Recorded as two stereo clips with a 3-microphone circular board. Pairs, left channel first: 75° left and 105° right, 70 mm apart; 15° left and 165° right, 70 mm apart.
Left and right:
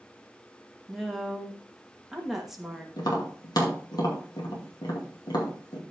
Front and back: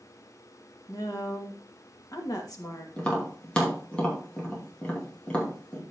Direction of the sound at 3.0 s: 90° left.